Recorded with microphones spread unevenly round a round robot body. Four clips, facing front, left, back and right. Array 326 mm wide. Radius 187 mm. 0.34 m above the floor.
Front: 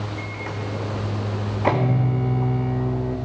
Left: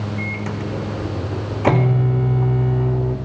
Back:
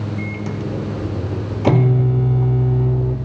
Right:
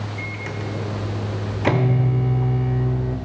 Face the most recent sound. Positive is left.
turn(degrees=170)